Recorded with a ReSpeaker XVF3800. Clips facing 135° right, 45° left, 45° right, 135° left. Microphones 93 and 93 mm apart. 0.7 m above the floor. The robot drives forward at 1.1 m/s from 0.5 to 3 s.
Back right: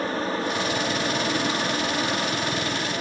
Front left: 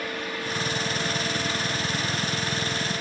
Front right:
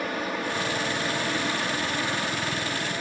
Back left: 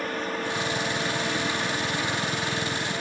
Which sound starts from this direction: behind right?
An aircraft, at 0.0 s.